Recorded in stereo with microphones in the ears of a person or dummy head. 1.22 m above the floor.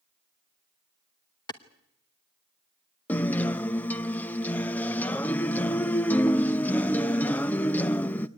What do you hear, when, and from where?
1.5 s a clap: 20° left (ahead or behind), 1.1 m
3.1 s a guitar: 10° left (ahead or behind), 0.7 m